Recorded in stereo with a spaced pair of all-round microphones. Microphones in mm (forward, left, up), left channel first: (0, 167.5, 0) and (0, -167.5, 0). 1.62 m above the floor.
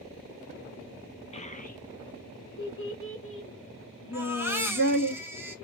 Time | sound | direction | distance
1.3 | a child speaking | 20° left (ahead or behind) | 1.1 m
4.1 | a baby crying | 5° right (ahead or behind) | 1.0 m